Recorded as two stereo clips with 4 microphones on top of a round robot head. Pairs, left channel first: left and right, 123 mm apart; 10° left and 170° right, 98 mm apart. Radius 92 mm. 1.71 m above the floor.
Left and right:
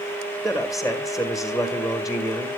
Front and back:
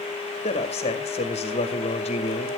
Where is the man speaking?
Straight ahead, 2 m.